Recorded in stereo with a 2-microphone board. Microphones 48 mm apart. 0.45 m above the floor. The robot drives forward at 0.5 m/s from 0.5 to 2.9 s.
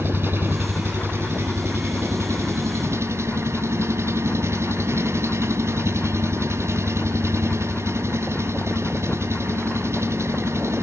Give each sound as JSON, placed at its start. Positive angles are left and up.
{"t": 0.0, "sound": "an engine running", "side_deg": -45, "distance_m": 2.5}